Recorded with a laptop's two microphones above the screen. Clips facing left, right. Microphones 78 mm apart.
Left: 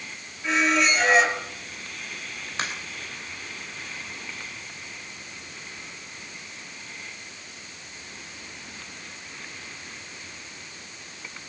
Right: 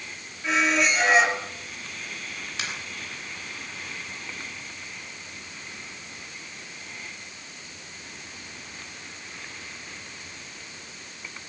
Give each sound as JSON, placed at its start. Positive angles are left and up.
{"t": 0.4, "sound": "a squeak", "side_deg": 0, "distance_m": 2.5}
{"t": 2.6, "sound": "a crack", "side_deg": 40, "distance_m": 3.0}